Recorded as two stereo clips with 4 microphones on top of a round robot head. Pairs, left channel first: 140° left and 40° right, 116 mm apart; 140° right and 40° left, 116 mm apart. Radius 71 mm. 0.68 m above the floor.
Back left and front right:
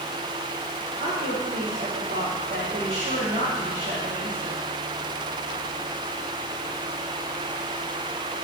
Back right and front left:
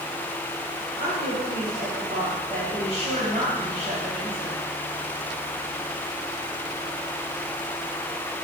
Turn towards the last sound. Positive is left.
turn(degrees=-15)